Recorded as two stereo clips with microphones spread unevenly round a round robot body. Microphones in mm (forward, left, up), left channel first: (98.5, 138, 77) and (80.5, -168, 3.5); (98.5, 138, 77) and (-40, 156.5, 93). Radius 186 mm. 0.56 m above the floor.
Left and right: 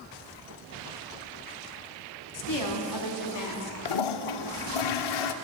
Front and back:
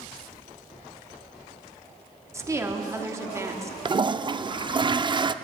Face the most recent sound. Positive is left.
turn(degrees=105)